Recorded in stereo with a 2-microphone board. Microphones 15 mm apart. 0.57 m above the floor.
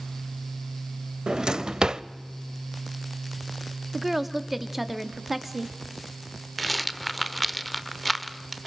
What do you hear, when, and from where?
1.3 s a drawer: 65° right (ahead or behind), 0.6 m
3.9 s a woman speaking: 10° right (ahead or behind), 1.2 m
6.6 s a rattle: 15° left (ahead or behind), 0.9 m